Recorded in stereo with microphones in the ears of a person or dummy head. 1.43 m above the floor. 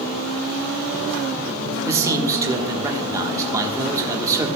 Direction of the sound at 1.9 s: 20° right (ahead or behind).